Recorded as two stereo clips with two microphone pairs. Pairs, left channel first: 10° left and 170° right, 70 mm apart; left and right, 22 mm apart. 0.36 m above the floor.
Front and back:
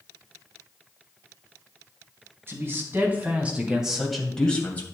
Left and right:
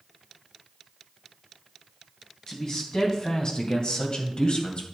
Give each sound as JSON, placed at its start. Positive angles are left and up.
{"t": 2.5, "sound": "a man speaking", "azimuth_deg": 145, "distance_m": 4.0}